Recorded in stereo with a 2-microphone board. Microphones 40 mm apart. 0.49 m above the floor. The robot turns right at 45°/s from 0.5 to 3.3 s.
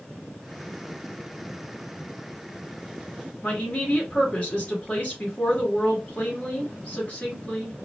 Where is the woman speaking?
35° left (ahead or behind), 1.2 m.